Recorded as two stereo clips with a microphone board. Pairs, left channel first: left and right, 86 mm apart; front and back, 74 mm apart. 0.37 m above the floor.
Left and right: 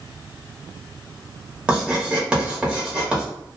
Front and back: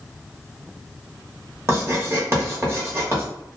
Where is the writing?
160° right, 0.9 m.